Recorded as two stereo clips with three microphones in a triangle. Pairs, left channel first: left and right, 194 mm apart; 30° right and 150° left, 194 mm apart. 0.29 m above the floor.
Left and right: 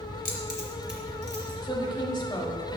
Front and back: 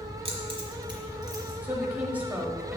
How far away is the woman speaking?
About 1.0 m.